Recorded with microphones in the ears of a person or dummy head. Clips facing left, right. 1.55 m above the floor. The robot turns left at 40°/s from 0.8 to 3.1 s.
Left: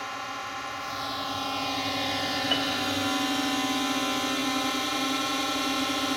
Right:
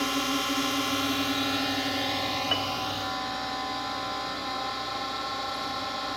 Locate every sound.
0.0 s a drone: 130° right; by 6.2 s 135° left
2.5 s a piano: centre (ahead or behind); by 2.7 s 10° right (ahead or behind)